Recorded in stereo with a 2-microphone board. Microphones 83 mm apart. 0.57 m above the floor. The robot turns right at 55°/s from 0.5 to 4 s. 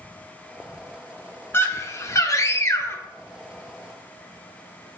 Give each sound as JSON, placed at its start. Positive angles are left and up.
{"t": 1.5, "sound": "a scream", "azimuth_deg": 50, "distance_m": 1.0}